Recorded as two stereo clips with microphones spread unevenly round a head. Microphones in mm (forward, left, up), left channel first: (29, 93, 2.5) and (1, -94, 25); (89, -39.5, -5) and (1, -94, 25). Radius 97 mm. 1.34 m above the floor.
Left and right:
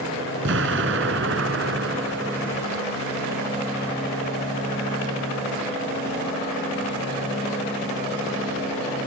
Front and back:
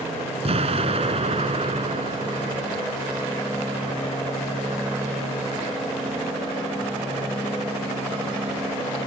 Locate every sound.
0.5 s an explosion: 130° right